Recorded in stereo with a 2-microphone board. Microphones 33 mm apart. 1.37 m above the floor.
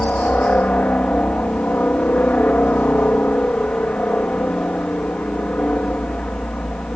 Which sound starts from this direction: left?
A helicopter, at 0.0 s.